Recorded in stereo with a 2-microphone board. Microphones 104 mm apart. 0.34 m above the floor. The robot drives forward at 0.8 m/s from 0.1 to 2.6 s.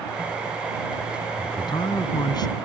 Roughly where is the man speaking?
Left.